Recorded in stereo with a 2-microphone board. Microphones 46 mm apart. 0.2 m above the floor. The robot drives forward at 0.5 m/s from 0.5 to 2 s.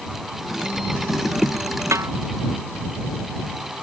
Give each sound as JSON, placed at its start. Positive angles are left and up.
{"t": 1.9, "sound": "a snare drum", "side_deg": -85}